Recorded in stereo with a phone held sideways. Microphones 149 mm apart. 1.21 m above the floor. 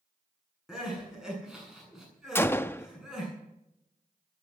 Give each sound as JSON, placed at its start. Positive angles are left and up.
{"t": 0.7, "sound": "crying", "side_deg": -5, "distance_m": 8.0}
{"t": 2.4, "sound": "a gunshot", "side_deg": 15, "distance_m": 0.6}